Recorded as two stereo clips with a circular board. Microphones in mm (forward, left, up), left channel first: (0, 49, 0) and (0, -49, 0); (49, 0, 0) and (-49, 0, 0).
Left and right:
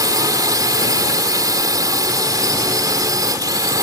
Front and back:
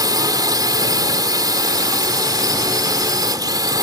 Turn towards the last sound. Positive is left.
turn(degrees=-135)